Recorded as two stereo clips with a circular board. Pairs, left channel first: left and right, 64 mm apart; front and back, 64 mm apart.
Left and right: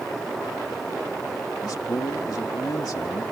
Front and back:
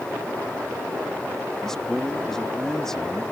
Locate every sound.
1.6 s a man speaking: 80° left